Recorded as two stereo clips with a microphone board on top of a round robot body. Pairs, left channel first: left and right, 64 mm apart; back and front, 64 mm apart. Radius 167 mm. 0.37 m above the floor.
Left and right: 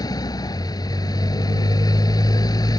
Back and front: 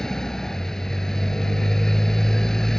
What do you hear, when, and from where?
0.0 s a motorcycle: 95° left